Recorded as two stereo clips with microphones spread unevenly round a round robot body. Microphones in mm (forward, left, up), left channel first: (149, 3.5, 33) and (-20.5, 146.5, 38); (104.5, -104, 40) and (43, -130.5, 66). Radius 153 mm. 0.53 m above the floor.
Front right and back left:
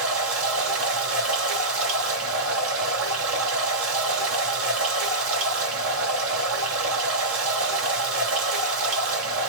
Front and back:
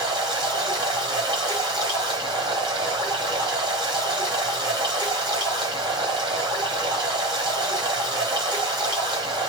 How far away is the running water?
About 1.5 m.